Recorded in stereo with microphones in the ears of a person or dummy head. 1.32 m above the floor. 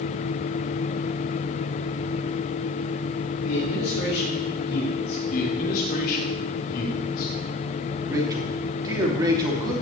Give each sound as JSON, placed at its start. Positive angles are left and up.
{"t": 3.5, "sound": "a man speaking", "side_deg": 85, "distance_m": 4.0}
{"t": 5.3, "sound": "a man speaking", "side_deg": 50, "distance_m": 2.5}
{"t": 8.1, "sound": "a man speaking", "side_deg": -20, "distance_m": 2.5}